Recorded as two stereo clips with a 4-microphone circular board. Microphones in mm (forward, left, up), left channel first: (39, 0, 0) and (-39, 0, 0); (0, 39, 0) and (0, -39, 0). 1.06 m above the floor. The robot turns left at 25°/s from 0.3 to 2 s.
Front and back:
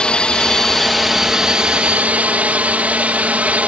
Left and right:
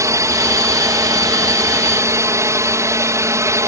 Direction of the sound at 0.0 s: 75° right.